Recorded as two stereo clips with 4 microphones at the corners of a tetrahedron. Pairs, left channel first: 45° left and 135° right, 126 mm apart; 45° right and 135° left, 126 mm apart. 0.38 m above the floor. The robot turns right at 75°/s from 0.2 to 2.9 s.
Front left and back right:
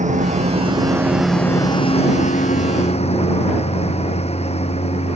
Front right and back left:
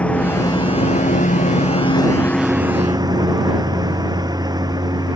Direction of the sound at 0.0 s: 125° right.